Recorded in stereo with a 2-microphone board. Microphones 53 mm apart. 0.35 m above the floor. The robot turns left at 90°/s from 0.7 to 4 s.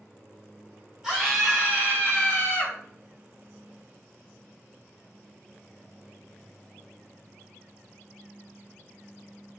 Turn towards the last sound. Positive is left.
turn(degrees=-70)